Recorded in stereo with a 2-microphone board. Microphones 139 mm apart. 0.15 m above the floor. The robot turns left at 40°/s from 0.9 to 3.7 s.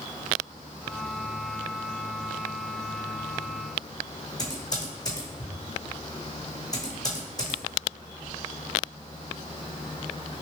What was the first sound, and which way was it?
Typing on a keyboard, 25° left (ahead or behind).